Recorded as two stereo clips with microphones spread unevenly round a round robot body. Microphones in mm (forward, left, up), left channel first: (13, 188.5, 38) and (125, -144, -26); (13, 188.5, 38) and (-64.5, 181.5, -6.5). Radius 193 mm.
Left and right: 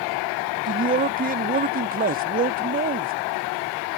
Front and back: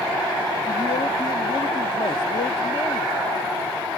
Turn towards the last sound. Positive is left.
turn(degrees=-55)